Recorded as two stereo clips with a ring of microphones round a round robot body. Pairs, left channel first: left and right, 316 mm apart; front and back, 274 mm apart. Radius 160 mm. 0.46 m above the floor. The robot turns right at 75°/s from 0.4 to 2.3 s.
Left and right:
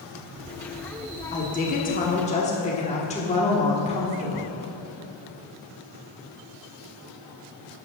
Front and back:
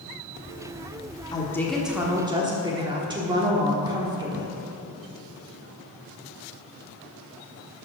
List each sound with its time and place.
1.3 s a woman speaking: 55° left, 1.2 m; by 4.5 s 130° left, 1.2 m